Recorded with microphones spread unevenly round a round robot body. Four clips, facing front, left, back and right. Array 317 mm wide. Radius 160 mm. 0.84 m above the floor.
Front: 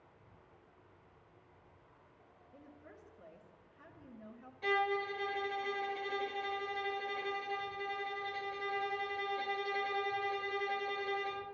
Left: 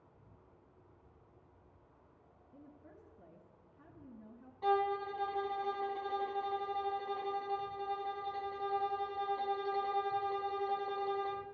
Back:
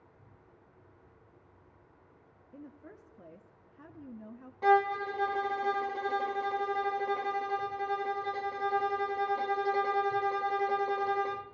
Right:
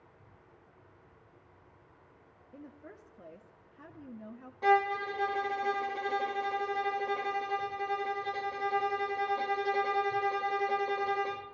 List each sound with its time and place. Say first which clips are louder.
0.0 s an insect: right 4 dB, back 3 dB; 155° left, 5 m
2.5 s a woman speaking: right 7 dB, back 7 dB; 150° right, 1.1 m
4.6 s a violin: right 5 dB, back 8 dB; 135° right, 0.6 m